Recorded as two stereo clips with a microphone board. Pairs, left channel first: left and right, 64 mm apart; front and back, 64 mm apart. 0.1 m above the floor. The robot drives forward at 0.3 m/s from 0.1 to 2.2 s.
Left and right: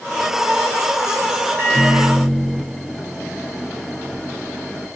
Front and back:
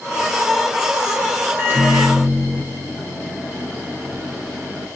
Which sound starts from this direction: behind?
A microwave, at 1.6 s.